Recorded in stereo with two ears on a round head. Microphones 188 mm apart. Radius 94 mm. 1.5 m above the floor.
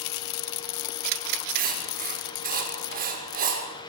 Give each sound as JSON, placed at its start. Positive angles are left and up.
{"t": 1.6, "sound": "writing", "side_deg": -45, "distance_m": 6.0}